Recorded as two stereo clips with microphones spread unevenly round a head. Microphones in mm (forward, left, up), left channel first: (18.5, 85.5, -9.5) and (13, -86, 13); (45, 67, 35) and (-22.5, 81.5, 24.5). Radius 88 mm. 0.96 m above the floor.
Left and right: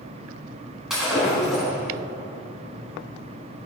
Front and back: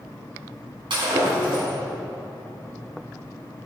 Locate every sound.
0.9 s breaking glass: straight behind, 4 m